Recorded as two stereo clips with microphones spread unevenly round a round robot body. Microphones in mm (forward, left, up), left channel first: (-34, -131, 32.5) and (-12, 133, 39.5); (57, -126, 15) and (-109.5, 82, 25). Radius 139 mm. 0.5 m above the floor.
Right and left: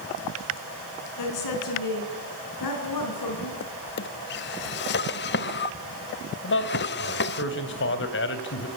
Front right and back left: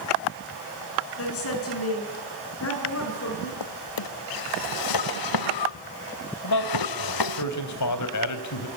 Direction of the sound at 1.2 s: 85° right.